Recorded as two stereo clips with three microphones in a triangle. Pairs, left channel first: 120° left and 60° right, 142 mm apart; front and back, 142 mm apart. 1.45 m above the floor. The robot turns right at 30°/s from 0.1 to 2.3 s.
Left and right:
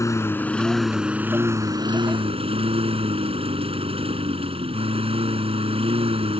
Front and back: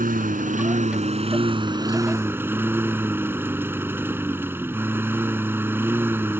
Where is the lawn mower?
170° right; by 6.4 s 105° right.